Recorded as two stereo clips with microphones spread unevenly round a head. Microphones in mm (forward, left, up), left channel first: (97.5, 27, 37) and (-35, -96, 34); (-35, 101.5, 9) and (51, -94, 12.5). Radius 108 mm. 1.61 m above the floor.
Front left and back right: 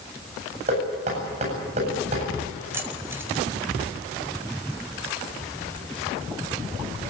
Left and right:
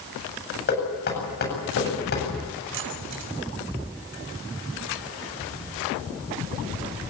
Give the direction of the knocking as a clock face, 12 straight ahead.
7 o'clock.